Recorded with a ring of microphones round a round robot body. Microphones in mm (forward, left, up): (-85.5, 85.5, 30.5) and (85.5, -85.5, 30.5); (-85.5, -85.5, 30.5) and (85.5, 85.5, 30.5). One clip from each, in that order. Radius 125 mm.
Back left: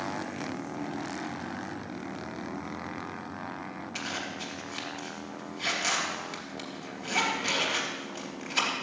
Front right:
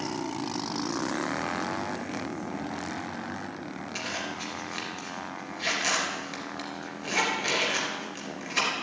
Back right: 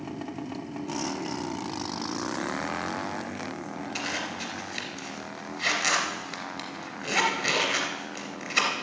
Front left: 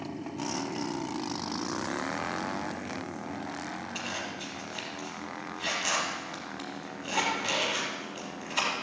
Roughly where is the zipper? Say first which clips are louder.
Front right 2 dB, back right 6 dB; behind right.